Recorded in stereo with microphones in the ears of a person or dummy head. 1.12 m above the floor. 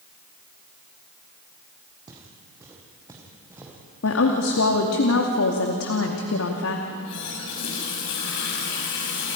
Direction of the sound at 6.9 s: 65° left (ahead or behind).